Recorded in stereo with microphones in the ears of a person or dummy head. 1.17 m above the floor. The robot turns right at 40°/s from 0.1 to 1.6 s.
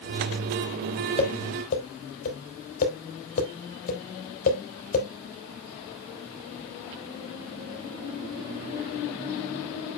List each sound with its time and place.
1.2 s tapping: 30° left (ahead or behind), 3.5 m; by 5.1 s 50° left (ahead or behind), 3.5 m